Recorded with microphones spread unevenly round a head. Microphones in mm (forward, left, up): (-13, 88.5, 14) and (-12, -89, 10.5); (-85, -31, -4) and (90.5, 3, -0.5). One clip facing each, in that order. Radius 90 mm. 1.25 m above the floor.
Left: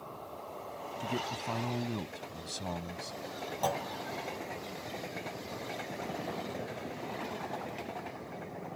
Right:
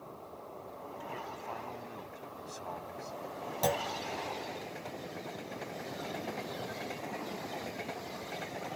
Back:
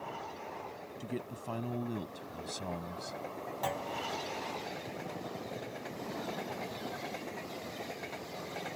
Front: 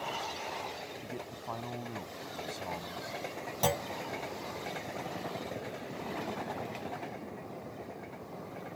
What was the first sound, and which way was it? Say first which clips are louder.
A man speaking: left 8 dB, back 2 dB; 130° left.